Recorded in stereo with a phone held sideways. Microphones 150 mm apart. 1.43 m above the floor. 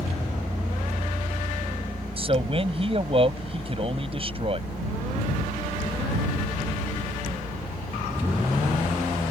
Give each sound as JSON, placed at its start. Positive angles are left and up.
{"t": 2.2, "sound": "a man speaking", "side_deg": -40}